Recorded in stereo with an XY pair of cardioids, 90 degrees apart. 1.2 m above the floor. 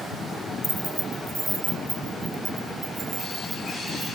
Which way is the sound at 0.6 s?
Straight ahead.